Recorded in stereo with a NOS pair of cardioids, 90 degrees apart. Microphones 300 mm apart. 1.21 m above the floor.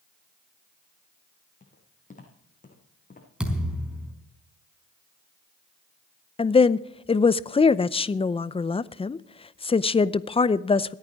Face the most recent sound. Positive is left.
turn(degrees=20)